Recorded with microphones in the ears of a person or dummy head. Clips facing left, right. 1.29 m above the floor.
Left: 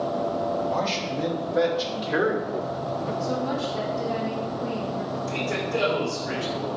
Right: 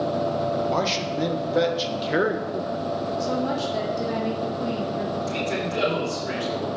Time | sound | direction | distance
0.7 | a man speaking | 65° right (ahead or behind) | 1.3 m
3.2 | a woman speaking | 75° right (ahead or behind) | 1.7 m
5.3 | a man speaking | 75° right (ahead or behind) | 3.5 m